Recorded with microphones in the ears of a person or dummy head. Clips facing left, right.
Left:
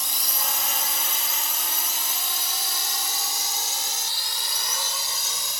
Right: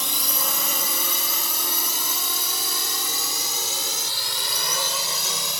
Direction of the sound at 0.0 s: 60° right (ahead or behind).